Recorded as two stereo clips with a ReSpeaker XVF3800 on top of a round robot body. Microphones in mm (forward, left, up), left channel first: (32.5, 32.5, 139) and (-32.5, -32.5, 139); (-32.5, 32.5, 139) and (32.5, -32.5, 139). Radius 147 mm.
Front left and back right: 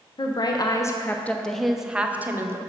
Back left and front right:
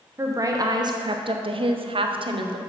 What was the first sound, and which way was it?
A woman speaking, 15° left.